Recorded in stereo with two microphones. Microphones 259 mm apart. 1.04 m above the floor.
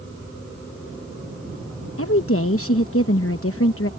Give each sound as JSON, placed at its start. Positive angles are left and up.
{"t": 2.0, "sound": "a woman speaking", "side_deg": 60}